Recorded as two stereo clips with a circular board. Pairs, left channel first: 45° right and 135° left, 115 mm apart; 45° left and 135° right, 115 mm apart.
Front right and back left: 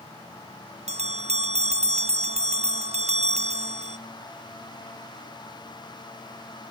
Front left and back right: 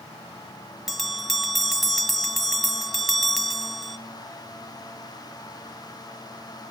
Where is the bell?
135° left, 0.7 m.